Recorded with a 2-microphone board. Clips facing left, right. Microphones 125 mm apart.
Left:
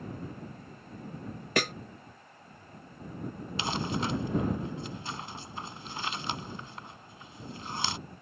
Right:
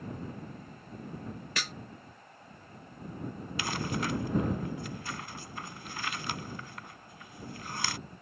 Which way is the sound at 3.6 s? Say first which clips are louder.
Left 2 dB; 25° left (ahead or behind).